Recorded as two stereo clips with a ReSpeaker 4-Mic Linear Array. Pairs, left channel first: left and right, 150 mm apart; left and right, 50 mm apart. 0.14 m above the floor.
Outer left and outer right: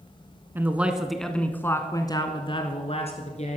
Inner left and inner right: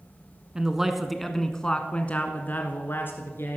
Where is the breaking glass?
I don't hear breaking glass.